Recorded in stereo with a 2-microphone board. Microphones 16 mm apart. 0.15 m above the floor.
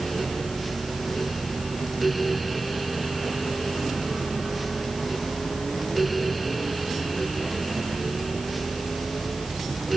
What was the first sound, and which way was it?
Only background noise.